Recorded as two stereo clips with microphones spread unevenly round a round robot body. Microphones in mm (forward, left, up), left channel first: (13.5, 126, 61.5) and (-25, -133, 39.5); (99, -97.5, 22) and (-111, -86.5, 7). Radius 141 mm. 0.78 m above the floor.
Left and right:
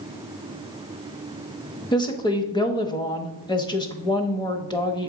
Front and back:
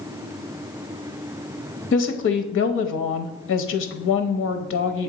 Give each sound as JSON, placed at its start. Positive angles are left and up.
{"t": 1.9, "sound": "a woman speaking", "azimuth_deg": 5, "distance_m": 0.8}